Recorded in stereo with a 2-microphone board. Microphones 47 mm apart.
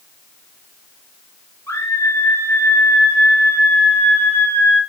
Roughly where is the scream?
Left.